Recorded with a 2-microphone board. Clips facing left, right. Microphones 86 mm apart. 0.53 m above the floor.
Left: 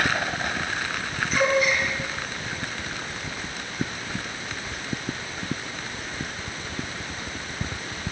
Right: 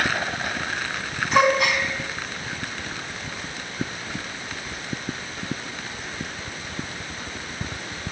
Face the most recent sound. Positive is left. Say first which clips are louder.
# right 3 dB
turn(degrees=-80)